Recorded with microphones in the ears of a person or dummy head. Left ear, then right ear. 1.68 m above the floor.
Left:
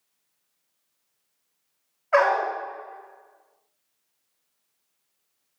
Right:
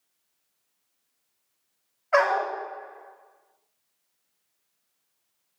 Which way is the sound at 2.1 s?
5° left (ahead or behind).